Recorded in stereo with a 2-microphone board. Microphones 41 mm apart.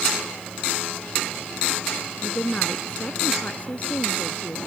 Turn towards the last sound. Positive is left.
turn(degrees=40)  # may be behind; listen again after turning